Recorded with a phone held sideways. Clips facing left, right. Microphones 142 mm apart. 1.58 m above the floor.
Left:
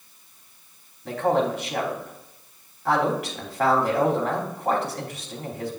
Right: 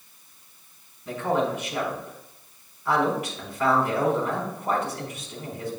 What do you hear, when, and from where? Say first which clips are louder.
1.1 s a man speaking: left 3 dB; 85° left, 3.5 m